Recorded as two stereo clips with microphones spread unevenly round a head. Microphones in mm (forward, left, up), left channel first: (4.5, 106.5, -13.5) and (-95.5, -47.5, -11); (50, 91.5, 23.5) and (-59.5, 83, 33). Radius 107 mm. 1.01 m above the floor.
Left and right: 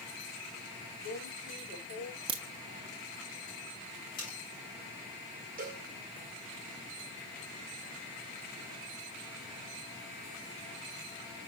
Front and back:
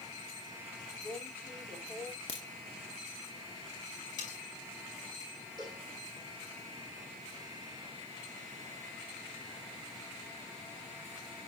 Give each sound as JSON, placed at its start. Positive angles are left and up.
{"t": 1.0, "sound": "a woman speaking", "azimuth_deg": 80, "distance_m": 6.0}
{"t": 2.3, "sound": "a crack", "azimuth_deg": -60, "distance_m": 0.7}
{"t": 4.2, "sound": "cutlery clinking", "azimuth_deg": 0, "distance_m": 5.0}
{"t": 5.6, "sound": "a cowbell", "azimuth_deg": -70, "distance_m": 1.4}